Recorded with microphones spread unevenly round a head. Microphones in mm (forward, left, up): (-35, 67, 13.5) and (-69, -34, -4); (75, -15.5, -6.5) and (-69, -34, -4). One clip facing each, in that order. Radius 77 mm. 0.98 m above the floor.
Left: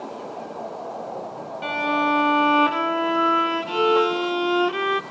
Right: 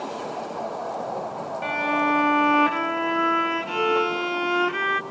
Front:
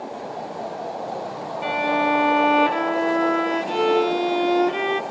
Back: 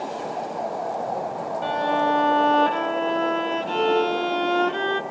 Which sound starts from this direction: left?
A violin, at 1.6 s.